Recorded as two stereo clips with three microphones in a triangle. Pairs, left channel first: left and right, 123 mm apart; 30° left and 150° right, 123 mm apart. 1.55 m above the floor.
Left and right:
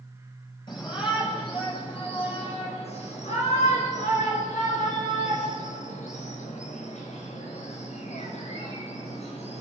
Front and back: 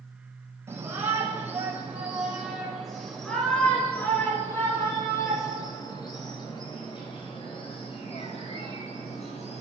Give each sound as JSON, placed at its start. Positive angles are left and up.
{"t": 0.7, "sound": "a shout", "azimuth_deg": 140, "distance_m": 8.5}